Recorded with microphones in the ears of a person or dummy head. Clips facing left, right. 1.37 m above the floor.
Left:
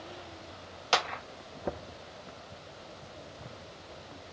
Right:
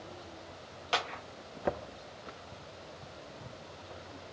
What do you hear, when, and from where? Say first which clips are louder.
0.9 s a clap: left 4 dB; 60° left (ahead or behind), 0.6 m